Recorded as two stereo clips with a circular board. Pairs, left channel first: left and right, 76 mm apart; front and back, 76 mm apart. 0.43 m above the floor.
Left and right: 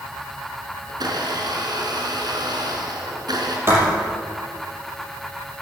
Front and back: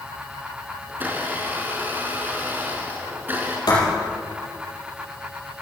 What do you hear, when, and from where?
0.9 s a blender: 115° right, 3 m
3.7 s writing: 35° right, 5 m